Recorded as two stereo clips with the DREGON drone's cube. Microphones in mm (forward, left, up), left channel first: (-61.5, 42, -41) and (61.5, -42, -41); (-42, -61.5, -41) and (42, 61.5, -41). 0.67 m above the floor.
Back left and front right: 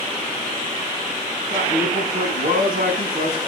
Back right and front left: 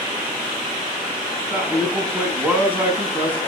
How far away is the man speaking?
About 5.5 m.